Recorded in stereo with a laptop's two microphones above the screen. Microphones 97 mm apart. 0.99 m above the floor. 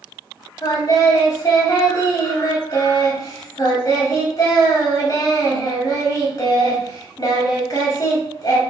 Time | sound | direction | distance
0.6 | singing | 40° left (ahead or behind) | 0.8 m